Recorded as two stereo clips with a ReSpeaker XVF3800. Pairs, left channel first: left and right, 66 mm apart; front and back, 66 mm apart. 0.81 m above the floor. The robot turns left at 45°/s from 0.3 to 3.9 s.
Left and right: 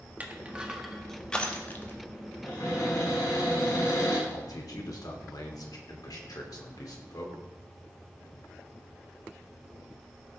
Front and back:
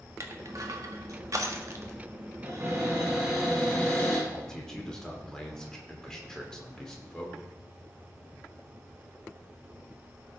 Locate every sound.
0.2 s crushing: 150° right, 1.4 m; by 2.0 s 135° left, 1.4 m
2.4 s a cupboard door: 145° left, 6 m; by 4.2 s 75° left, 6 m
4.3 s a man speaking: 80° left, 2.5 m